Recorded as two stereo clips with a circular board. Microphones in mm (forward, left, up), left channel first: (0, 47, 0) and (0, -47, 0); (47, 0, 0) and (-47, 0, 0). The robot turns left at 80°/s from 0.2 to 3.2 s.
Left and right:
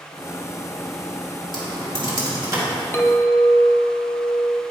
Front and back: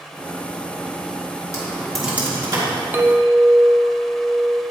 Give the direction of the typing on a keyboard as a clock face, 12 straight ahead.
2 o'clock.